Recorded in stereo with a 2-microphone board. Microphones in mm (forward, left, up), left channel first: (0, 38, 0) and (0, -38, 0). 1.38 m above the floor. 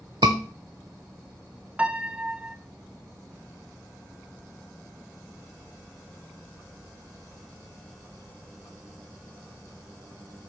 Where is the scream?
70° right (ahead or behind), 0.9 m.